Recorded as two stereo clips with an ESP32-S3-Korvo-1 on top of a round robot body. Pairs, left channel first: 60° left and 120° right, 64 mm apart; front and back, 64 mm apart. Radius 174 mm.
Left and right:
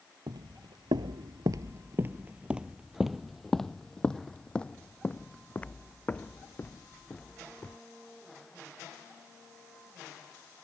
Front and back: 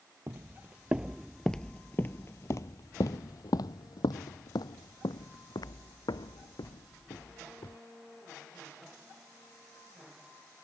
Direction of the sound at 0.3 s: 125° right.